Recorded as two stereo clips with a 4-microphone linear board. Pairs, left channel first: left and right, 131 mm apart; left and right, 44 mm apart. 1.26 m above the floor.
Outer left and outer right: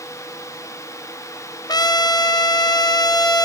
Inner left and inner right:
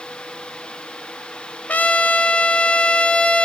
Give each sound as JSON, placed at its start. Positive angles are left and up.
{"t": 1.7, "sound": "a trumpet", "side_deg": 30, "distance_m": 0.6}